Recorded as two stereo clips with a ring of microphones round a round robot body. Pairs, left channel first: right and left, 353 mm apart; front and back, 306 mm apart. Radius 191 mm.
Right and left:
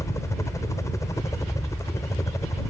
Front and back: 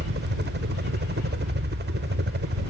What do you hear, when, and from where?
0.0 s a helicopter: 165° right